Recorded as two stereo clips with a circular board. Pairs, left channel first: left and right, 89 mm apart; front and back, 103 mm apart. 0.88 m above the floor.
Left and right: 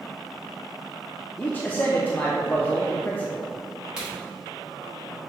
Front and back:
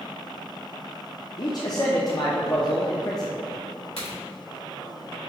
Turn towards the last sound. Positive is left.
turn(degrees=-10)